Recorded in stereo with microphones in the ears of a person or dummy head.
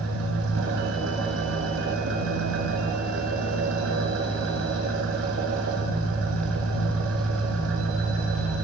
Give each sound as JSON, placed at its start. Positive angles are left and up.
{"t": 0.0, "sound": "an engine running", "side_deg": -65, "distance_m": 1.6}